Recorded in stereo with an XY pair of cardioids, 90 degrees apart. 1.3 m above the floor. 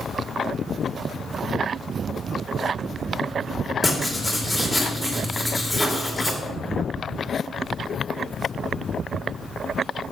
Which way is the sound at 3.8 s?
5° left.